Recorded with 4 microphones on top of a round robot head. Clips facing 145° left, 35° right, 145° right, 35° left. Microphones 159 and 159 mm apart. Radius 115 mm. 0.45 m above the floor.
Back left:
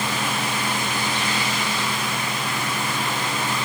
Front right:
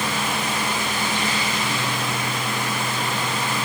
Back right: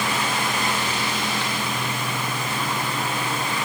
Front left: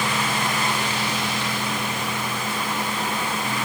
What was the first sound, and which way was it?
Only background noise.